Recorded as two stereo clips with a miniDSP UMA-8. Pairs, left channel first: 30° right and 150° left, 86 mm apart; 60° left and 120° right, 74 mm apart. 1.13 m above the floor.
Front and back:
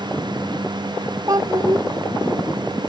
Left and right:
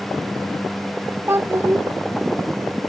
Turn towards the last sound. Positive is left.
turn(degrees=-175)